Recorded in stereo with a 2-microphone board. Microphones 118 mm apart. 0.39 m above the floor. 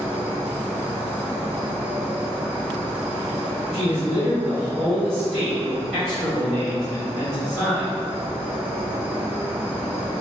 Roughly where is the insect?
Centre.